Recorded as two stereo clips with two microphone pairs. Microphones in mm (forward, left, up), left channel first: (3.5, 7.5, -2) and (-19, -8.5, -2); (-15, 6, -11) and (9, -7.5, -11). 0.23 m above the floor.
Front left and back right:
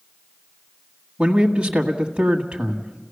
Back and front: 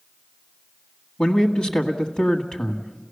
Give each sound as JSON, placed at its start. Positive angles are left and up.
{"t": 1.2, "sound": "a man speaking", "azimuth_deg": 180, "distance_m": 1.7}